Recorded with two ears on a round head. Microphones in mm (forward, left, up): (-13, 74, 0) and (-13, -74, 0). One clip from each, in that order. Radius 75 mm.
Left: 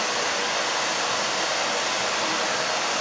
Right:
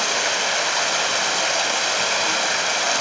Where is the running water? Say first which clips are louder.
Right 4 dB; 60° right (ahead or behind), 1.0 m.